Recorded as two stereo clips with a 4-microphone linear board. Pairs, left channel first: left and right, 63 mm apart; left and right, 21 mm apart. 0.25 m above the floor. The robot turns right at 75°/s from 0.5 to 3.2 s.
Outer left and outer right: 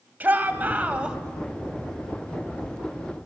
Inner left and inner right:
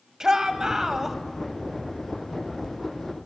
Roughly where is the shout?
Right.